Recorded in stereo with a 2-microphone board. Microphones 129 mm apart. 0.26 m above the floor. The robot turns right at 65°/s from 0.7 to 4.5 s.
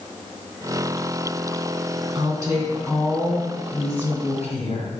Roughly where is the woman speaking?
Ahead right.